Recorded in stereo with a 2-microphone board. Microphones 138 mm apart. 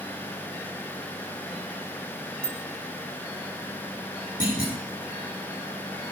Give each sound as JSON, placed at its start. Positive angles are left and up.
{"t": 2.4, "sound": "a bicycle bell", "side_deg": 5, "distance_m": 5.5}
{"t": 4.4, "sound": "a clunk", "side_deg": 80, "distance_m": 8.0}